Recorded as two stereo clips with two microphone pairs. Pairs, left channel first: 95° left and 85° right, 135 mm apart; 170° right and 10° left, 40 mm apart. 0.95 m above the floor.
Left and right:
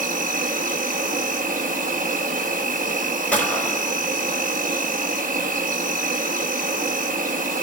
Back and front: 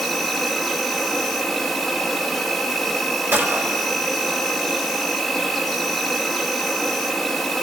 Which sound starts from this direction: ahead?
A gunshot, at 3.3 s.